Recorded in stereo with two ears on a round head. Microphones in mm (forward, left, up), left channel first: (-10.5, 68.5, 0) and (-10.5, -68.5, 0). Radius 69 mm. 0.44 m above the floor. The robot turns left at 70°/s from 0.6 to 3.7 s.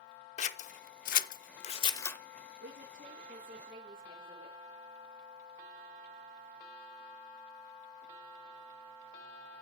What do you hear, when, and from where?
0.4 s scissors: 50° left (ahead or behind), 0.7 m; by 2.2 s 10° left (ahead or behind), 0.7 m
2.6 s a woman speaking: 70° right, 7 m; by 4.6 s 150° right, 7 m